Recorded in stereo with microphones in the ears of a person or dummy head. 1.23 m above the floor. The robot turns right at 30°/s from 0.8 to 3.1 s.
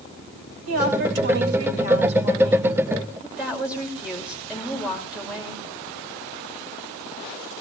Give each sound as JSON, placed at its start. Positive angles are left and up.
{"t": 0.7, "sound": "a woman speaking", "azimuth_deg": -80, "distance_m": 5.5}